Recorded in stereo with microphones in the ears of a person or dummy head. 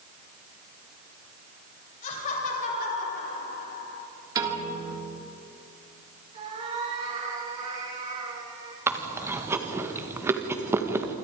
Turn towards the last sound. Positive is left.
turn(degrees=-20)  # may be behind; listen again after turning